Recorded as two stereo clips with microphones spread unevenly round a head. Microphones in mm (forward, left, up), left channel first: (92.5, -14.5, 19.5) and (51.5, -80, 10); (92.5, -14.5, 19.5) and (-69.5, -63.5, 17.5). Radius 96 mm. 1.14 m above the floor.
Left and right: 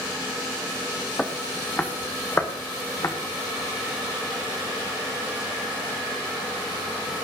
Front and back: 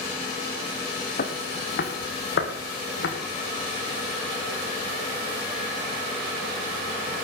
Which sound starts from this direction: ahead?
Footsteps, at 1.2 s.